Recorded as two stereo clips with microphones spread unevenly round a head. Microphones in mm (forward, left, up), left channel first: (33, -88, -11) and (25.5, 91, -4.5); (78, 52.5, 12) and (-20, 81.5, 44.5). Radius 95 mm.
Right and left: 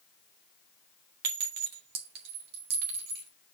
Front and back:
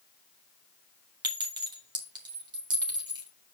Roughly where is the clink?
Behind left.